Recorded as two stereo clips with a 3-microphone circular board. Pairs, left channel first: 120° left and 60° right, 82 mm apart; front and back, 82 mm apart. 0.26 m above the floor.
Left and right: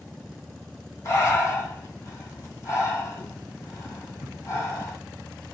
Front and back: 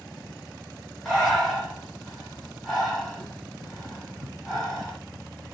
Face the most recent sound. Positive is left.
turn(degrees=85)